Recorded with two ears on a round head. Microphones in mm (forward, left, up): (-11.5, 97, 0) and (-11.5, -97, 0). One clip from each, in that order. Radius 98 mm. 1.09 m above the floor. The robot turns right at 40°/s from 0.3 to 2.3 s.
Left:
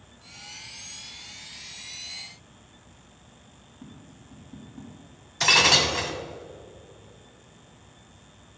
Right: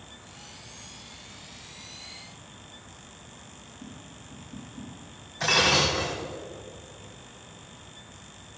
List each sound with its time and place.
3.8 s tapping: 5° left (ahead or behind), 2.5 m
5.4 s breaking glass: 70° left (ahead or behind), 1.9 m